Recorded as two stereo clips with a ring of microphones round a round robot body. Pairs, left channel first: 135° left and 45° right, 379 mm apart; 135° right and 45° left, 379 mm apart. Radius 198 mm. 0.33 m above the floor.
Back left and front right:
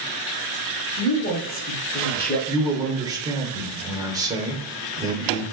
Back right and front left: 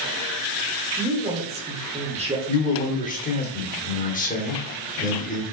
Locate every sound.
1.0 s a man speaking: 100° left, 1.2 m
2.5 s a man speaking: 110° right, 1.0 m